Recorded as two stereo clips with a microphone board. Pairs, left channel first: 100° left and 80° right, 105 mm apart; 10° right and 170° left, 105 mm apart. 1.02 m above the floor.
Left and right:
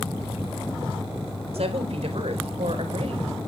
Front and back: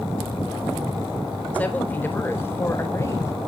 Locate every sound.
1.5 s a woman speaking: 85° right, 4 m; by 3.3 s 70° right, 4.5 m